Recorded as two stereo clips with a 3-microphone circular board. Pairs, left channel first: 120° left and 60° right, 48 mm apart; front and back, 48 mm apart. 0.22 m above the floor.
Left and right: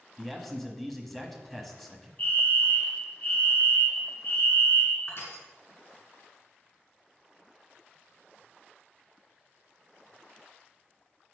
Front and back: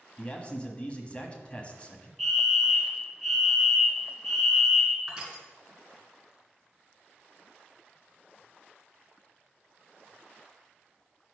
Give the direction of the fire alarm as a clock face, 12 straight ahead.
9 o'clock.